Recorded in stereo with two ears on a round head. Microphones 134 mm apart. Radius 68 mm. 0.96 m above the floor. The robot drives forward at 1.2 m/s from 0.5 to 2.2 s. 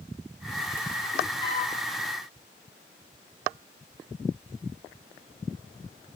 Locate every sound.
1.4 s a flute: 35° left (ahead or behind), 2.5 m; by 1.7 s 45° left (ahead or behind), 2 m